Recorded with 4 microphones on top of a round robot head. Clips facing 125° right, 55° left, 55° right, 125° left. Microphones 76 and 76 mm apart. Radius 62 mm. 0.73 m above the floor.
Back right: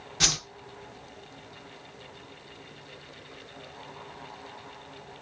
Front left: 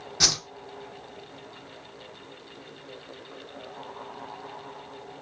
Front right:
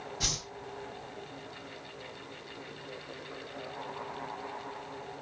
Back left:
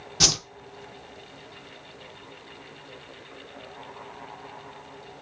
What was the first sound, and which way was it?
A whoosh, 130° left.